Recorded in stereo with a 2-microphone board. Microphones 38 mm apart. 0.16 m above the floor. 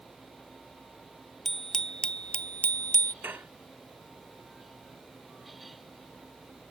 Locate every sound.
1.4 s a bicycle bell: 5° left (ahead or behind); by 3.1 s 65° left (ahead or behind)
3.2 s dishes clattering: 75° right (ahead or behind)